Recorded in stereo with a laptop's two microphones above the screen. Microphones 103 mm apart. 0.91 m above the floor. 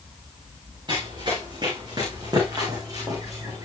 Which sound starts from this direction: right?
Running footsteps, at 0.9 s.